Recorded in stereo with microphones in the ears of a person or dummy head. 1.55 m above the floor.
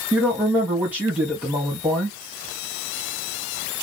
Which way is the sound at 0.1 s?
10° right (ahead or behind).